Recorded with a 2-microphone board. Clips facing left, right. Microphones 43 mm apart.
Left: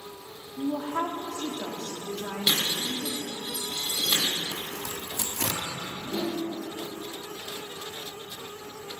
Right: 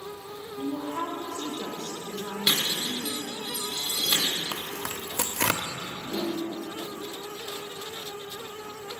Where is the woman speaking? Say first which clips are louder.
Left 2 dB; 70° left (ahead or behind), 1.4 m.